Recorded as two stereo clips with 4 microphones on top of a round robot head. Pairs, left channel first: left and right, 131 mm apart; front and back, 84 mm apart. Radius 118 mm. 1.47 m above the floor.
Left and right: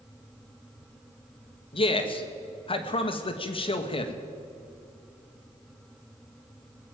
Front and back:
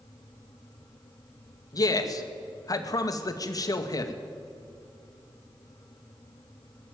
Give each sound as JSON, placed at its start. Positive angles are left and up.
{"t": 1.7, "sound": "a man speaking", "azimuth_deg": 45, "distance_m": 2.0}